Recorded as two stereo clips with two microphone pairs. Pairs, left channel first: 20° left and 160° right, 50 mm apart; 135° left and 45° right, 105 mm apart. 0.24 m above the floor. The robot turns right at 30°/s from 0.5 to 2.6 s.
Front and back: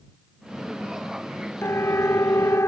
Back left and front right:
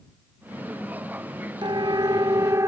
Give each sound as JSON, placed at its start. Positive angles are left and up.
{"t": 1.6, "sound": "a siren", "azimuth_deg": -5}